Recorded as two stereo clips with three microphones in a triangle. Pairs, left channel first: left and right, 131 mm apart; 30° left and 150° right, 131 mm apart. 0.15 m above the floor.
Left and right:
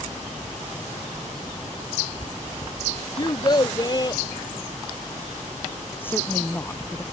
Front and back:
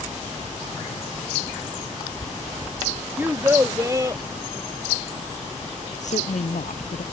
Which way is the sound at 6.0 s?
15° left.